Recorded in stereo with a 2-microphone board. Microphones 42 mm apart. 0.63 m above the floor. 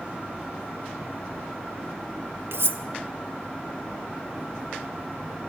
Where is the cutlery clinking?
70° right (ahead or behind), 0.8 m.